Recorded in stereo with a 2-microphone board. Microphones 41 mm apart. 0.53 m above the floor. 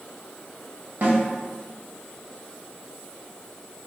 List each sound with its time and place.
1.0 s a snare drum: 50° right (ahead or behind), 1.2 m